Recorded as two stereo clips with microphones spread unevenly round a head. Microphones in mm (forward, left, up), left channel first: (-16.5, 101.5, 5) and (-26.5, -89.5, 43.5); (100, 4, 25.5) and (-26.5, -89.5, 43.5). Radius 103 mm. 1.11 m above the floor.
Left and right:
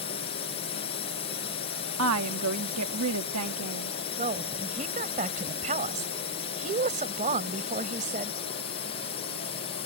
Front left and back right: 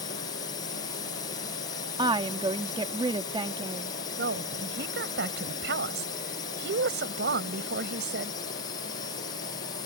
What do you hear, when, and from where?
0.0 s a drone: 75° left
2.0 s a woman speaking: 85° right
4.2 s a woman speaking: 145° right